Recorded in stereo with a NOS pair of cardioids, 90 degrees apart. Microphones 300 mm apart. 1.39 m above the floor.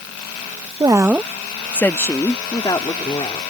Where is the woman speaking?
15° right; by 3.4 s 15° left.